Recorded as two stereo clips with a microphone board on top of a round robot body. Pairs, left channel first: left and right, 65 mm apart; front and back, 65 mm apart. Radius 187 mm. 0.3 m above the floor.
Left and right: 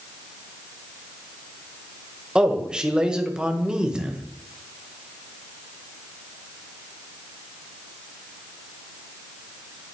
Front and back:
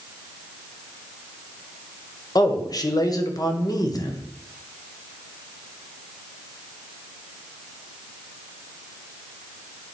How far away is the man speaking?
About 2.5 m.